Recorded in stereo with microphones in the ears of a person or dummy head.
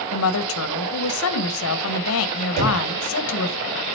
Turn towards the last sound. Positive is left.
turn(degrees=-85)